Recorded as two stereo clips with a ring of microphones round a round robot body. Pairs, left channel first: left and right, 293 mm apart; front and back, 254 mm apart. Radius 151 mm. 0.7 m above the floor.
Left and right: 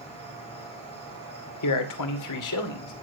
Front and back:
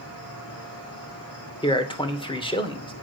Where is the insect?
20° left, 4 m.